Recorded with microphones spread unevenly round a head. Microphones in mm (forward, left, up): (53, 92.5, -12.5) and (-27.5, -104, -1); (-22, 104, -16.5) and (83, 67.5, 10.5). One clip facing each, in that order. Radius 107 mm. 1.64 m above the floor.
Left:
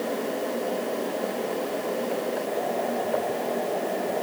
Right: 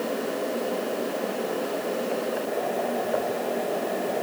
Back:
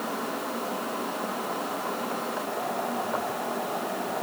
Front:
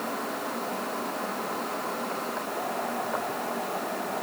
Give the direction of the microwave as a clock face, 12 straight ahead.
No microwave in this recording.